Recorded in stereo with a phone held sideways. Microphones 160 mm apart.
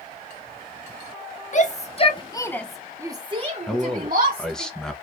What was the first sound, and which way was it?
A shout, 50° left (ahead or behind).